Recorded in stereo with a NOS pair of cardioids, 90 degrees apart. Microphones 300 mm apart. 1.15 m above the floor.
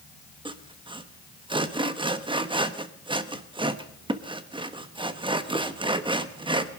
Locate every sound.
0.5 s sawing: 15° right, 1.1 m